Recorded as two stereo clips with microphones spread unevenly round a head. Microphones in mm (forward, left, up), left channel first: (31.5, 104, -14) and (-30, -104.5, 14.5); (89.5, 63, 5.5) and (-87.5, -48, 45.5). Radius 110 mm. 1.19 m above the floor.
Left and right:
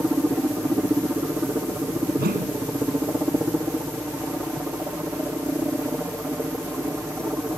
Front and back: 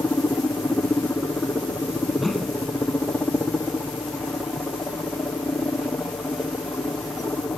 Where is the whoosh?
60° right.